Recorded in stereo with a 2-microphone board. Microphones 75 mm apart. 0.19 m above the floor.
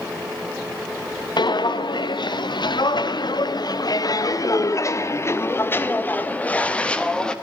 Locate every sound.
1.4 s footsteps: 80° left, 2 m; by 7.3 s 10° left (ahead or behind), 2.5 m